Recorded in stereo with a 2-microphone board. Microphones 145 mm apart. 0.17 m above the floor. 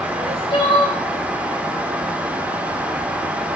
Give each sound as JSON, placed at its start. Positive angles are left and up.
{"t": 0.1, "sound": "crying", "side_deg": 40, "distance_m": 6.5}